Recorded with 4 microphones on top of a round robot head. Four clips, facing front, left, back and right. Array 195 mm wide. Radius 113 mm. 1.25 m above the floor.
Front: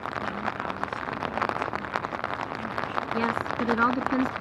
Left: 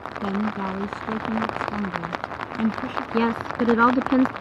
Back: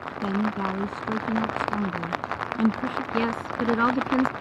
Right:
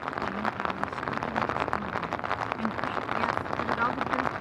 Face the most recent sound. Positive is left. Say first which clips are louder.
# left 10 dB, back 1 dB
turn(degrees=100)